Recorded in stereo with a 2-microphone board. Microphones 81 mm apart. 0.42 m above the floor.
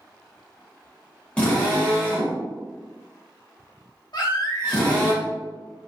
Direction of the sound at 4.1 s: 60° left (ahead or behind).